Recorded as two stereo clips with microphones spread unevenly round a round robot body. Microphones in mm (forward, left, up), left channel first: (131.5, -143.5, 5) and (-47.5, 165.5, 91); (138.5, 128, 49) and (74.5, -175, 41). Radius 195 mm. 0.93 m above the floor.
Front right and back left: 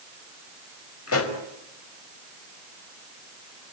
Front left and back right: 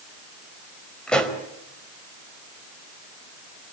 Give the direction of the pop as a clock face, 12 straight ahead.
12 o'clock.